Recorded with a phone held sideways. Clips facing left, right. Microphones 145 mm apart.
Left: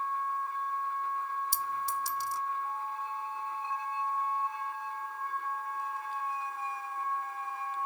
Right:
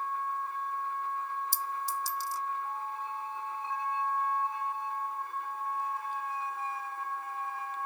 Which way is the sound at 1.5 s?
65° left (ahead or behind).